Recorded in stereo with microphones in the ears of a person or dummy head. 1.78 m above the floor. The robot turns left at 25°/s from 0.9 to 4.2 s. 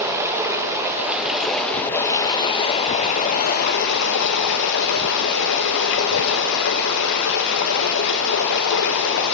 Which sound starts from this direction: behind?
Running water, at 0.0 s.